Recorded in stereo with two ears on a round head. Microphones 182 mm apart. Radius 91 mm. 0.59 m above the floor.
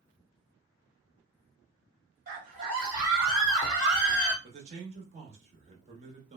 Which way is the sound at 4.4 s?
35° right (ahead or behind).